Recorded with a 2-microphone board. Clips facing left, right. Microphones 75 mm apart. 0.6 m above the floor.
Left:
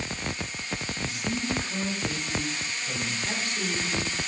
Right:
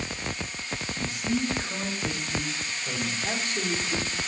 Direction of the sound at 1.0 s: 45° right (ahead or behind).